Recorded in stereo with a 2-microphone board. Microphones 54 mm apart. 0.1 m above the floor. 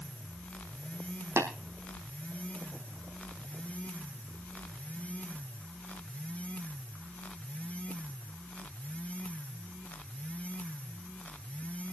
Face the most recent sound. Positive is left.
turn(degrees=-55)  # may be behind; listen again after turning